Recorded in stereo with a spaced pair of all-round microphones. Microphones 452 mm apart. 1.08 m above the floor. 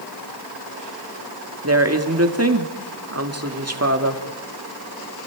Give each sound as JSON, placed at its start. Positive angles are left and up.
{"t": 1.6, "sound": "a woman speaking", "side_deg": -35, "distance_m": 2.0}